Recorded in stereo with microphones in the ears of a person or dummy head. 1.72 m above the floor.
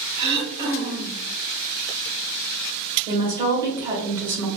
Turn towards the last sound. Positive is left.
turn(degrees=-20)  # may be behind; listen again after turning